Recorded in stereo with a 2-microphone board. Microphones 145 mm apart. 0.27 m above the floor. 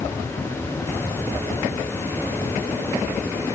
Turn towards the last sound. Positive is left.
No sound to turn to.